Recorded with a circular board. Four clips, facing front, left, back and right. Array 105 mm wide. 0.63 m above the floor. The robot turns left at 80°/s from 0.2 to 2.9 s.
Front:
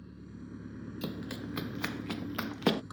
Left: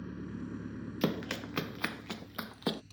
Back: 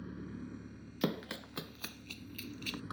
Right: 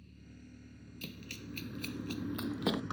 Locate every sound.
0.0 s an engine running: 110° left; by 2.9 s 105° right
1.0 s running footsteps: 115° left; by 2.8 s 10° right